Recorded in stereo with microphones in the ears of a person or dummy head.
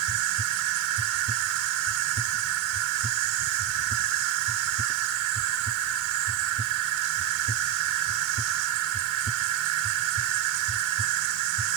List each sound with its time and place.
0.0 s an insect: 80° right